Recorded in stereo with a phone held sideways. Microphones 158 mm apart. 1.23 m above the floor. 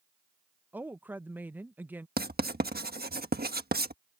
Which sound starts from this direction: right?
Writing, at 2.2 s.